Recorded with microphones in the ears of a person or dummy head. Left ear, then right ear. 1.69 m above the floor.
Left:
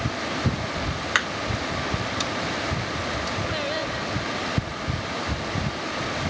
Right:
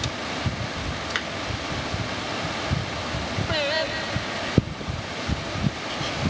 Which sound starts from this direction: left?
Hammering, at 1.1 s.